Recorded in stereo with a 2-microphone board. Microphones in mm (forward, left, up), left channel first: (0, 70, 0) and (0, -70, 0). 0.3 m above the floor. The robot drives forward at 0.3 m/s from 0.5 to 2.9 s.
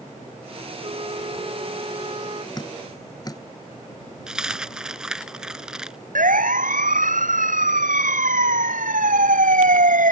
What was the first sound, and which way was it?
A flute, 40° right (ahead or behind).